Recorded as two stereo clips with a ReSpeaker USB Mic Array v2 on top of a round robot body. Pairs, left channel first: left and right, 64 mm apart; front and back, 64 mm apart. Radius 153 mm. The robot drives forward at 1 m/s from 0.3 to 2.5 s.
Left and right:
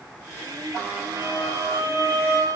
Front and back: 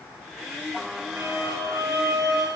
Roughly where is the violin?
Behind right.